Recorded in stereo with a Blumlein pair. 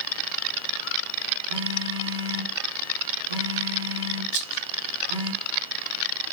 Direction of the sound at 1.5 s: 70° right.